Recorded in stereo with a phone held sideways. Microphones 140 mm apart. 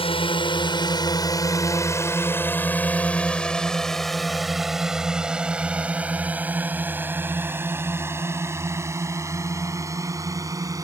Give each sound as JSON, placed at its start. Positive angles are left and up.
{"t": 0.0, "sound": "a drone", "side_deg": 40}